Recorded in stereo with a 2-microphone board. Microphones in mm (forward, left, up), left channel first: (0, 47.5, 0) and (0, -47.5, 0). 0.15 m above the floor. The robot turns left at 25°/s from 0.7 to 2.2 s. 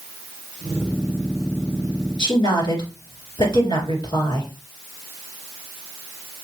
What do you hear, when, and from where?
2.2 s a woman speaking: 50° left (ahead or behind), 2.5 m